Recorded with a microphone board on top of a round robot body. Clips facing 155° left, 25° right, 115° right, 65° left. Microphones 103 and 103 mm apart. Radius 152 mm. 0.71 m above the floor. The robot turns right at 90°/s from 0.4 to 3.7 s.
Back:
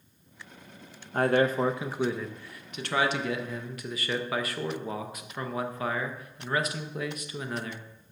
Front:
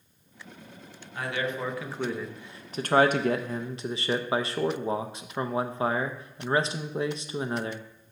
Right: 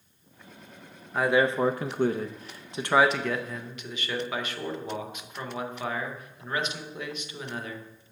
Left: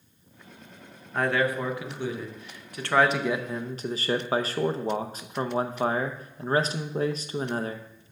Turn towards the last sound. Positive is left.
turn(degrees=30)